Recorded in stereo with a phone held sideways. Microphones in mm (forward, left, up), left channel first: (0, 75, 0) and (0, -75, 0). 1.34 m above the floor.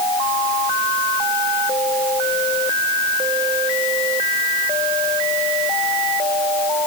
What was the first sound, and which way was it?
Only background noise.